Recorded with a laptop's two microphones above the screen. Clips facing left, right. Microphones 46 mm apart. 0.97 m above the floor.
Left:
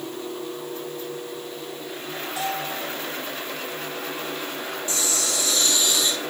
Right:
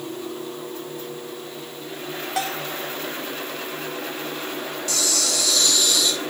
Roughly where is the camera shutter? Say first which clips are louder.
Right 3 dB; left.